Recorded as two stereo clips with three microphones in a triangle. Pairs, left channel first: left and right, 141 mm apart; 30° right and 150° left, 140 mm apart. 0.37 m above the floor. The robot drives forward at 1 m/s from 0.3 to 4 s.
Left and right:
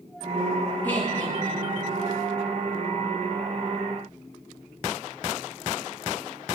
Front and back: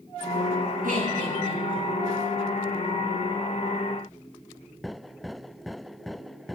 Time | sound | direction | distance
0.8 | laughter | 170° left | 7 m